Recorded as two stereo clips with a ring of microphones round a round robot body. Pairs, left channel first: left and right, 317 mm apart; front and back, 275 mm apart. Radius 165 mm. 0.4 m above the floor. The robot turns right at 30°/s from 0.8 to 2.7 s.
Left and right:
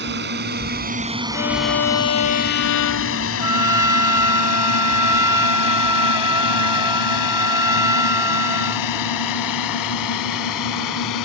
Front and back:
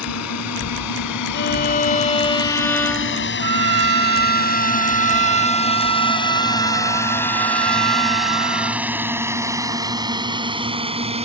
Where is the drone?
35° right; by 11.3 s 115° left.